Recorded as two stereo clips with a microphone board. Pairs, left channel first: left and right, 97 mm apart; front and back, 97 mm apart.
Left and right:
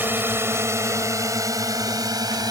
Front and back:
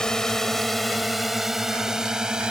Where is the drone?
70° right; by 2.5 s 100° right.